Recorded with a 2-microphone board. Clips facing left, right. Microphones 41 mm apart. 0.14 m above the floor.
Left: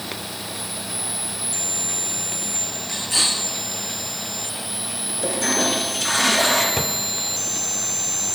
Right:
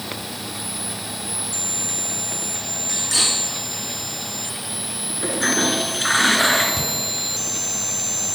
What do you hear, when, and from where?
2.9 s cutlery clinking: 80° right, 5 m
5.2 s a toilet flushing: 30° right (ahead or behind), 1.6 m
6.8 s a drawer: 40° left (ahead or behind), 1.0 m